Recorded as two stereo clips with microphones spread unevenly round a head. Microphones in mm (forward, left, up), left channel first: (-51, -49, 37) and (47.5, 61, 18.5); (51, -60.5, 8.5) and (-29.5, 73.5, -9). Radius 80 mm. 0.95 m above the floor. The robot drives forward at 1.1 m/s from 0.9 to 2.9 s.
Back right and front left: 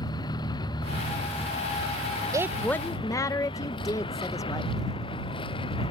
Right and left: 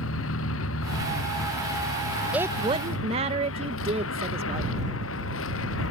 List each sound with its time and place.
0.0 s a vehicle: 65° right; by 5.9 s 70° right
2.3 s a woman speaking: 55° left; by 4.7 s 155° left